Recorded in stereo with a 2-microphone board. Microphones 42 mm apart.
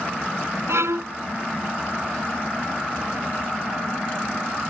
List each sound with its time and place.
0.7 s a violin: 85° right